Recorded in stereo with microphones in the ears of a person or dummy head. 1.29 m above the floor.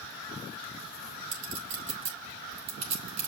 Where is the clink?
45° right (ahead or behind), 5 m.